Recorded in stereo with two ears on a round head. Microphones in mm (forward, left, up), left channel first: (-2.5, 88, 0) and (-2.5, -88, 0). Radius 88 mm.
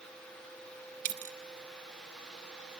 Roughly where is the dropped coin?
Right.